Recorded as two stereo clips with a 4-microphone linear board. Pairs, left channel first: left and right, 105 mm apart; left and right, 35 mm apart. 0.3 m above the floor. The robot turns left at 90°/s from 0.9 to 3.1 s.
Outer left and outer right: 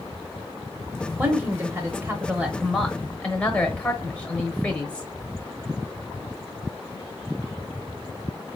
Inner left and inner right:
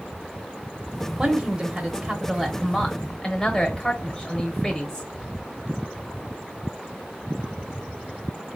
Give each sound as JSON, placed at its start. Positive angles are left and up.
{"t": 1.2, "sound": "a woman speaking", "side_deg": -15, "distance_m": 1.0}